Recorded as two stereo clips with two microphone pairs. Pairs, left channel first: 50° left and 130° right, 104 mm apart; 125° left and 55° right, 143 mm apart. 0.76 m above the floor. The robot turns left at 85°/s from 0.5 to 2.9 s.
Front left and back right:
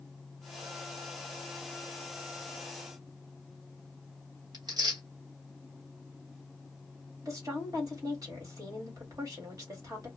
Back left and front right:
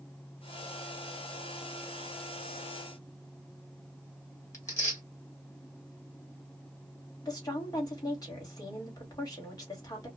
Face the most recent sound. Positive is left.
turn(degrees=180)